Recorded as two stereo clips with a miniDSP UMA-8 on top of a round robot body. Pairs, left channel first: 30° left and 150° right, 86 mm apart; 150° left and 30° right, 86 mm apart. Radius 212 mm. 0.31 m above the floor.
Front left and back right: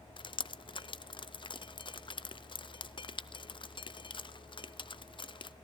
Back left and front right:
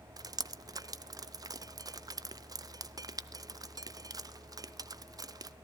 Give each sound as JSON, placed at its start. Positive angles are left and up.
{"t": 0.2, "sound": "dripping", "azimuth_deg": 15, "distance_m": 0.6}